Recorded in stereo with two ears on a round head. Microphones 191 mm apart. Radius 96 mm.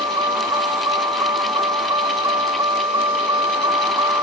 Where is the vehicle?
20° right (ahead or behind); by 4.2 s 15° right (ahead or behind).